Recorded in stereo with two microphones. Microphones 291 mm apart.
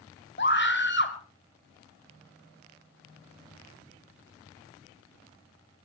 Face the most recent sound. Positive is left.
turn(degrees=40)  # may be behind; listen again after turning